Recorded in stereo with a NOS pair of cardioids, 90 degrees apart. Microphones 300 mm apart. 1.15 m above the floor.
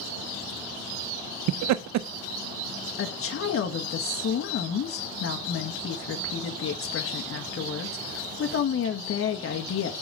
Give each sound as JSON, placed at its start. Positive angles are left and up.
{"t": 1.5, "sound": "laughter", "azimuth_deg": -65, "distance_m": 0.5}
{"t": 3.0, "sound": "a woman speaking", "azimuth_deg": 45, "distance_m": 1.6}